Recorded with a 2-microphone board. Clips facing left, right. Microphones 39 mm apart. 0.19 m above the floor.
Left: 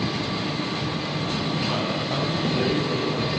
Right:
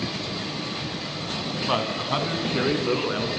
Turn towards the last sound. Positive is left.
turn(degrees=-60)  # may be behind; listen again after turning